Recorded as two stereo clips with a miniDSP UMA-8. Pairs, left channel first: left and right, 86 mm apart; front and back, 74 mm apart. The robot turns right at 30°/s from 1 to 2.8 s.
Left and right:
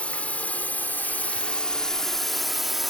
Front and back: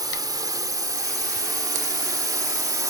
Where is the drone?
165° left; by 2.9 s straight behind.